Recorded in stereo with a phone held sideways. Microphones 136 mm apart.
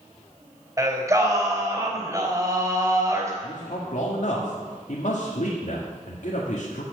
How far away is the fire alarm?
I don't hear a fire alarm.